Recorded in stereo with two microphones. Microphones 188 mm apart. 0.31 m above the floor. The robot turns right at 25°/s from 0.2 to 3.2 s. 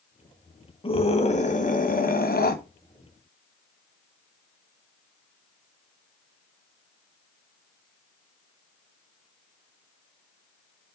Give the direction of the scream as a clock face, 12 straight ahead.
11 o'clock.